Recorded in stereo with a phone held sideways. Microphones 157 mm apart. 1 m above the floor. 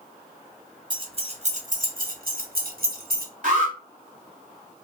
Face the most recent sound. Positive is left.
turn(degrees=-60)  # may be behind; listen again after turning